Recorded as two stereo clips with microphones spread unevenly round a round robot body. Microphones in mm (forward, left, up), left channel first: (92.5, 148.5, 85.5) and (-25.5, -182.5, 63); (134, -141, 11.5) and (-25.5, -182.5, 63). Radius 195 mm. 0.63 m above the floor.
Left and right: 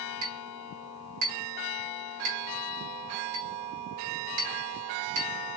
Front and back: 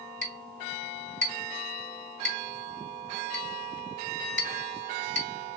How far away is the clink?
About 3 m.